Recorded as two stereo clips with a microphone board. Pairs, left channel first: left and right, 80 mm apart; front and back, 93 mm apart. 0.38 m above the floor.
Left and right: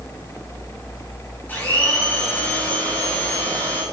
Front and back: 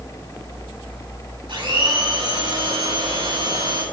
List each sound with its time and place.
1.5 s a blender: 155° left, 5 m